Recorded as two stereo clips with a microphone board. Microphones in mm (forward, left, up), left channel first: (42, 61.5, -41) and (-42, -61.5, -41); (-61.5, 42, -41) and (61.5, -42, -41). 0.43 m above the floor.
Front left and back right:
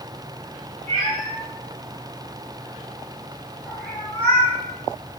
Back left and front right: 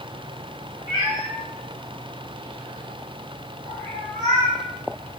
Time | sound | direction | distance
0.9 | a cat meowing | 95° right | 1.3 m